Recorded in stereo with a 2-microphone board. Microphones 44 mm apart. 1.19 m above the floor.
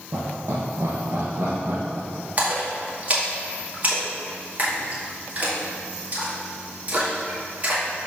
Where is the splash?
35° right (ahead or behind), 1.7 m.